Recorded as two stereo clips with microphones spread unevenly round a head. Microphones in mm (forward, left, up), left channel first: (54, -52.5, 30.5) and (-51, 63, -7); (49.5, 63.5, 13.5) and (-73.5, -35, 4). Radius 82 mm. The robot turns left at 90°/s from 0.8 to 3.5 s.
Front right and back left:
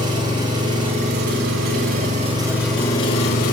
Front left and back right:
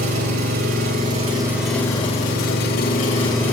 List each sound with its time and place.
0.0 s an engine running: 155° right, 1.4 m; by 3.5 s 40° right, 1.4 m